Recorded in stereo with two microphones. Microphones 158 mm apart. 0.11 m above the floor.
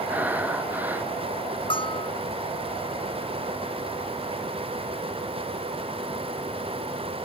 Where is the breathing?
10° right (ahead or behind).